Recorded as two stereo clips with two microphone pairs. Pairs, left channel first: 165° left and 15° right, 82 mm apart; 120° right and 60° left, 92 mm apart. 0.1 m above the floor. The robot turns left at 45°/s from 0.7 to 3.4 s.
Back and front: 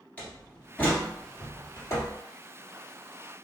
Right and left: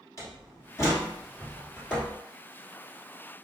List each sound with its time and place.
0.2 s a door slam: 135° right, 1.4 m; by 2.2 s 160° left, 1.4 m